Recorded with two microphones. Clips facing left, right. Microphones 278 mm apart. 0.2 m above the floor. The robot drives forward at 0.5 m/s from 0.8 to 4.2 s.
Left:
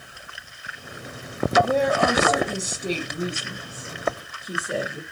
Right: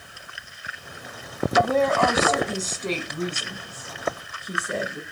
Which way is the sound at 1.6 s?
15° left (ahead or behind).